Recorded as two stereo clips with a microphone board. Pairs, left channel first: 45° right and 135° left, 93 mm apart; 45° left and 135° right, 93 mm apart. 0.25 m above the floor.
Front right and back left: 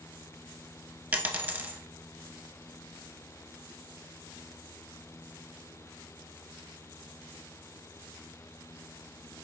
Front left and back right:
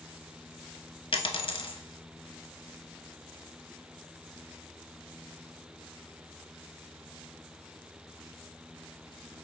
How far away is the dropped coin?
About 0.7 m.